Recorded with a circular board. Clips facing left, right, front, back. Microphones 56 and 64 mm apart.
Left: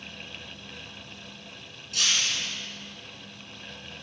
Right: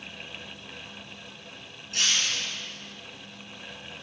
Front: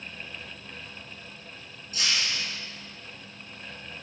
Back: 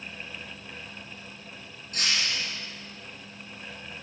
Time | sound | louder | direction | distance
1.9 | breaking glass | even, even | 150° right | 5 m